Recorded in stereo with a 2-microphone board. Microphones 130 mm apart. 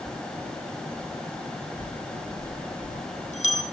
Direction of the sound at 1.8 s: 65° left (ahead or behind).